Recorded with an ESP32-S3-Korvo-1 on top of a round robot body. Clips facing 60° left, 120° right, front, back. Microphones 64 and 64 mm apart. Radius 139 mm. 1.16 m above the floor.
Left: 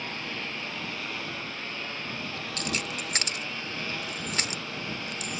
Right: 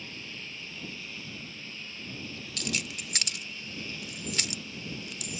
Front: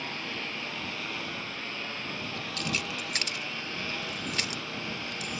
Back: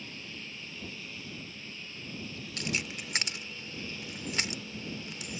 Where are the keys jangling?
110° left.